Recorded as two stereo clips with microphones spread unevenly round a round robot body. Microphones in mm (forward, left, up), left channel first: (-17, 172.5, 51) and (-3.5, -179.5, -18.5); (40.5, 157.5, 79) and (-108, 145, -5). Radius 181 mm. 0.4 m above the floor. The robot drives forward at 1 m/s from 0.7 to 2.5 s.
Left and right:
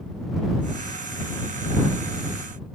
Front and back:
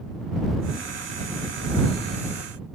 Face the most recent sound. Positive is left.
No sound to turn to.